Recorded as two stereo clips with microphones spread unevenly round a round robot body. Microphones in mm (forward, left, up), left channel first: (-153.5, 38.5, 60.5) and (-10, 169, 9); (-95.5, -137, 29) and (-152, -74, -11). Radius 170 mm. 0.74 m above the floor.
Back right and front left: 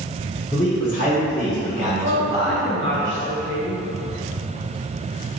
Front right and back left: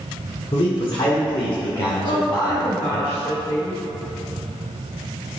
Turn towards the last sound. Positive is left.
turn(degrees=-15)